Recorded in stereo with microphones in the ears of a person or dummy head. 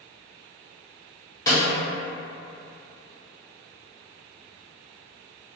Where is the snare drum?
20° left (ahead or behind), 0.8 m.